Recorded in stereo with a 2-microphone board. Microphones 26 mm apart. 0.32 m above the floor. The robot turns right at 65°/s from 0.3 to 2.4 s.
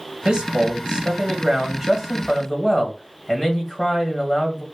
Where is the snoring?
No snoring in this recording.